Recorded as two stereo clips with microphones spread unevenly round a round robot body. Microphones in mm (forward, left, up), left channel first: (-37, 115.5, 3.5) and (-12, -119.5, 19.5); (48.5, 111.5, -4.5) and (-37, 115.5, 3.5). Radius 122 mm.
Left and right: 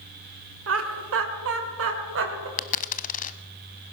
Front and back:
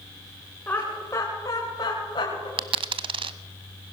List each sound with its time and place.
0.7 s laughter: 75° right, 2 m; by 2.5 s 45° right, 3 m
2.6 s a dropped coin: 155° left, 0.7 m